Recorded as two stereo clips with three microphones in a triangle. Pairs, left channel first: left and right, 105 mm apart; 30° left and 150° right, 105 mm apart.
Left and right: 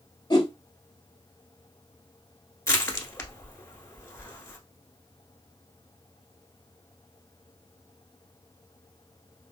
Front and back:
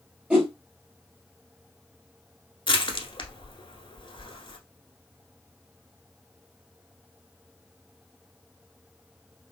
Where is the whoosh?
130° left, 1.3 m.